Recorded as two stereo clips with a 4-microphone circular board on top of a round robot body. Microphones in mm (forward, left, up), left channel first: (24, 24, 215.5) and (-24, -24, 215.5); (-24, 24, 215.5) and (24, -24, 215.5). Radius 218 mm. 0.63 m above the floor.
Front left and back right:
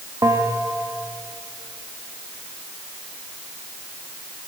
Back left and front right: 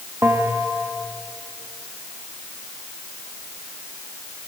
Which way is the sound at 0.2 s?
100° right.